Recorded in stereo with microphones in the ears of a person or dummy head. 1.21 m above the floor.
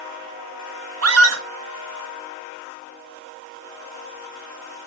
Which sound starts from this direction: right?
A scream, at 1.0 s.